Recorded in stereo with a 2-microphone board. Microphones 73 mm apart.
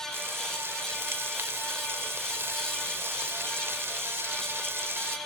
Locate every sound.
0.1 s frying: 35° right (ahead or behind), 1.5 m